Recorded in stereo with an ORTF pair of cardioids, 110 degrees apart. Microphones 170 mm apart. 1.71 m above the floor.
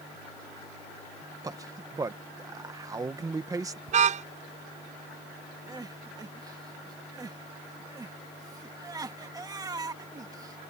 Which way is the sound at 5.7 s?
25° right.